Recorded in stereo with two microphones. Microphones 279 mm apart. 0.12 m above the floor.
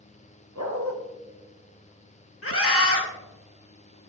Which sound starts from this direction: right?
A dog barking, at 0.6 s.